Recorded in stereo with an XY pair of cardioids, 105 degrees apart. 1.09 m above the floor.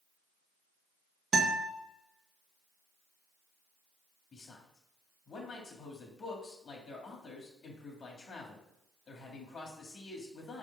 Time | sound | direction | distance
1.3 | a guitar | 55° right | 1.8 m
4.3 | a man speaking | 45° left | 2.5 m